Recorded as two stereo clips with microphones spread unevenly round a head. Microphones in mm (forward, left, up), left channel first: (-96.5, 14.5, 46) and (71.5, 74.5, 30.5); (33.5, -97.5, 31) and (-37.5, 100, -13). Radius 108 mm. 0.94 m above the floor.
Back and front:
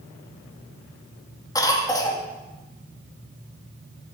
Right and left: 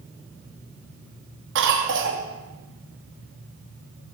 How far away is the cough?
About 1.9 m.